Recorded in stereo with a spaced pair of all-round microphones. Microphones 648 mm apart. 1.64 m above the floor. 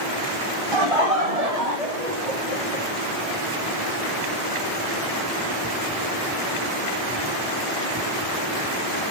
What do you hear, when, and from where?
0.7 s laughter: 40° right (ahead or behind), 1.3 m; by 2.9 s 80° right, 4 m